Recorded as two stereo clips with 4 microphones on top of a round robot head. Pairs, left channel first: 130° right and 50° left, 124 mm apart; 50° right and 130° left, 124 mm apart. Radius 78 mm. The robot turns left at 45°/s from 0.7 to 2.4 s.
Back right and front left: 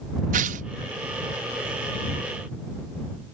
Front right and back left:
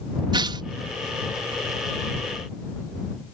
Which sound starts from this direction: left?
Tearing paper, at 0.3 s.